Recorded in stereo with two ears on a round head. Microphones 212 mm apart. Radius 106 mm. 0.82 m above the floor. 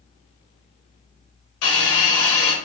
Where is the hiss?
70° left (ahead or behind), 5 m.